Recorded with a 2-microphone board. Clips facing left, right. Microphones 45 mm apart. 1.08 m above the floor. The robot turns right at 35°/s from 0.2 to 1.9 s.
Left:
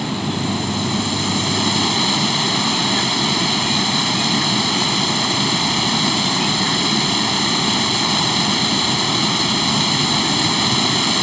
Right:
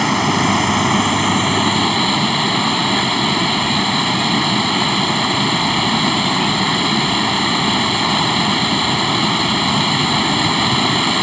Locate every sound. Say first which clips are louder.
0.0 s running water: right 7 dB; 80° right; by 11.2 s 20° right